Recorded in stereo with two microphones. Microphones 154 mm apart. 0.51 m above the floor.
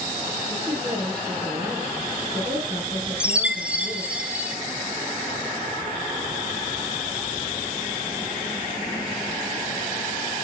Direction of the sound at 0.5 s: 30° right (ahead or behind).